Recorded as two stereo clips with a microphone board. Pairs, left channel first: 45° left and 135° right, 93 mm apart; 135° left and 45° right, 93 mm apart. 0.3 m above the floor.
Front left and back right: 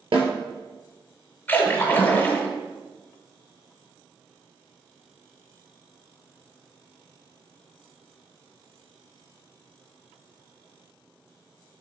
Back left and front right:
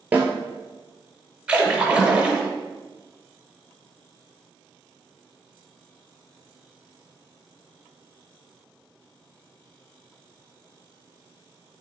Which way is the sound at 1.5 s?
15° left.